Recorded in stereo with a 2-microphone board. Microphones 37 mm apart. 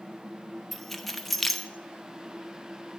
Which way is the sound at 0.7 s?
5° left (ahead or behind).